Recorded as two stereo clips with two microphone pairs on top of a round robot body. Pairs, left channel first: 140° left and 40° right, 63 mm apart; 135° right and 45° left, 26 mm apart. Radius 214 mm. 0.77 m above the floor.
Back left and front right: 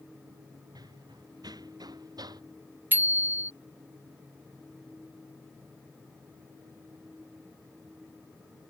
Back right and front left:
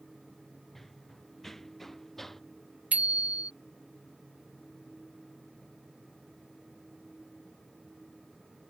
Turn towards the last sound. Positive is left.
turn(degrees=20)